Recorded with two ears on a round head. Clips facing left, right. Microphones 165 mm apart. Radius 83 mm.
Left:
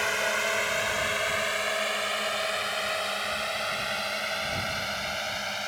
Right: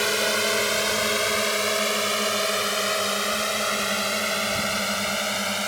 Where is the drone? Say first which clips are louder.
Right 5 dB; 50° right (ahead or behind); by 5.7 s 70° right (ahead or behind).